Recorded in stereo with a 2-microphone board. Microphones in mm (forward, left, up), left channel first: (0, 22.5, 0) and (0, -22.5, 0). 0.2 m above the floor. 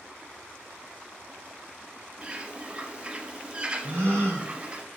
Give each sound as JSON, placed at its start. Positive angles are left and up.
{"t": 2.2, "sound": "a bird", "side_deg": -25, "distance_m": 0.5}
{"t": 3.8, "sound": "a gasp", "side_deg": -60, "distance_m": 2.5}